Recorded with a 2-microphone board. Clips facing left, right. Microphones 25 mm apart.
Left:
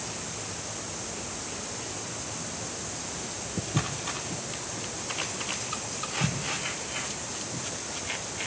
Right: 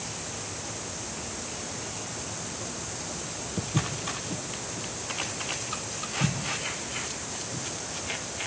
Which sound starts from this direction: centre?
Footsteps, at 3.6 s.